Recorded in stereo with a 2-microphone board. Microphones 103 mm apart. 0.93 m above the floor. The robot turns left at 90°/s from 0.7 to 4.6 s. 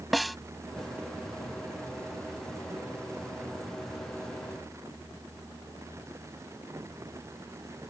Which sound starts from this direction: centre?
A snare drum, at 0.1 s.